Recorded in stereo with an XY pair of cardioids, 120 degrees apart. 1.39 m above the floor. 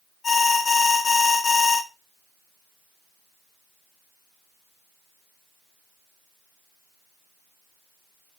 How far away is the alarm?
About 2 m.